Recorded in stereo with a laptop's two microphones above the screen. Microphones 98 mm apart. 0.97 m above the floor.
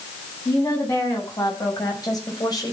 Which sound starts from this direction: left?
A woman speaking, at 0.5 s.